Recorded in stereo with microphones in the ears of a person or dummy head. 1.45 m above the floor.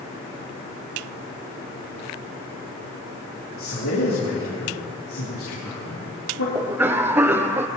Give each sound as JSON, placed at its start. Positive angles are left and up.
{"t": 3.6, "sound": "a man speaking", "side_deg": 80, "distance_m": 3.0}
{"t": 6.5, "sound": "a cough", "side_deg": -15, "distance_m": 0.8}